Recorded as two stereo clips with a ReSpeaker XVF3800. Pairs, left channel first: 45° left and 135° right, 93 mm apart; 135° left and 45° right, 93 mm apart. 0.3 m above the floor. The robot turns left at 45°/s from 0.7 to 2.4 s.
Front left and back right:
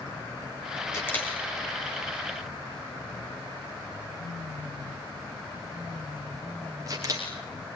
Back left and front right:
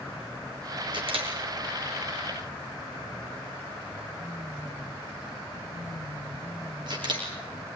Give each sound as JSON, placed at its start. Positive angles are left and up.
{"t": 0.9, "sound": "a camera shutter", "azimuth_deg": -15, "distance_m": 4.0}